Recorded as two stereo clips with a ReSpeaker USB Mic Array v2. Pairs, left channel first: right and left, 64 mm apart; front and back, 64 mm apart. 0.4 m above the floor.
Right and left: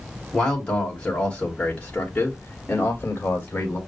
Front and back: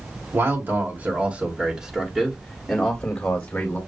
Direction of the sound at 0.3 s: 165° right.